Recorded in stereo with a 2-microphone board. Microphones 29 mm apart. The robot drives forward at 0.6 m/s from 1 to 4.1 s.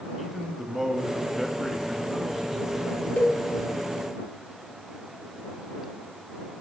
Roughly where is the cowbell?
Left.